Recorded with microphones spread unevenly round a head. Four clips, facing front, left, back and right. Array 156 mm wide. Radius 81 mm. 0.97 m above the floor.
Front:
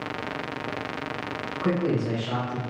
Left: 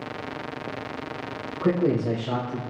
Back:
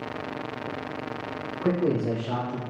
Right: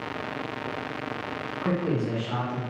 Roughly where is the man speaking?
Behind left.